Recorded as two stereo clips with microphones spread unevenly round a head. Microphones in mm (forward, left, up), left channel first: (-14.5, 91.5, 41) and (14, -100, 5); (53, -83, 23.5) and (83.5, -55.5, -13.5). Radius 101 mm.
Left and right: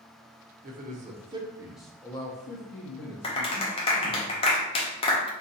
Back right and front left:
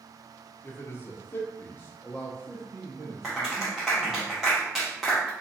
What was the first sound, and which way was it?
A man speaking, 130° right.